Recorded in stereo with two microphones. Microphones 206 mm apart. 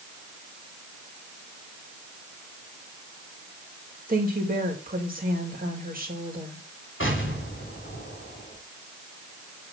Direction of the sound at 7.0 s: 70° left (ahead or behind).